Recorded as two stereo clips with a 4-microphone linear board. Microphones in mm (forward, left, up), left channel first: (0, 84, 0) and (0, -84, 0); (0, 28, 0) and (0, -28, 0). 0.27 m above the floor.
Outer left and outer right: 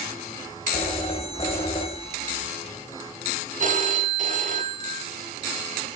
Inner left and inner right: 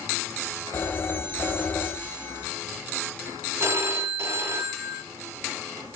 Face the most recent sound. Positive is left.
turn(degrees=-50)  # may be behind; listen again after turning